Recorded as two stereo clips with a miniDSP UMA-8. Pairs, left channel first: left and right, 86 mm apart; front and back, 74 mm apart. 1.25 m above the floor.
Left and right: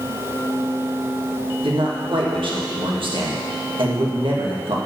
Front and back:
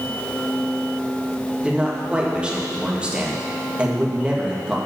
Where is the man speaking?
105° right, 1.5 m.